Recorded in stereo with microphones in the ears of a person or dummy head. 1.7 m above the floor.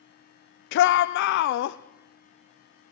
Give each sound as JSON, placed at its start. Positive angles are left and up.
{"t": 0.7, "sound": "a shout", "side_deg": 60, "distance_m": 0.5}